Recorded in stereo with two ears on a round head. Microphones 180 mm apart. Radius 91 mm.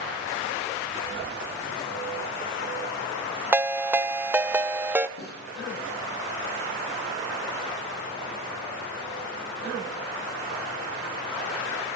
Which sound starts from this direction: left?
A snare drum, at 5.2 s.